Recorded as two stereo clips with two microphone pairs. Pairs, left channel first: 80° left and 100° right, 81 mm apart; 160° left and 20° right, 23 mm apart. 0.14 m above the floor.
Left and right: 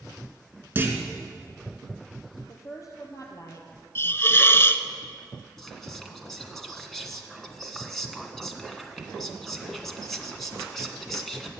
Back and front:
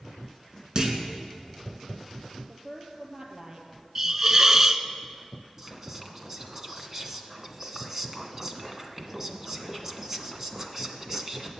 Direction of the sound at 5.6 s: Straight ahead.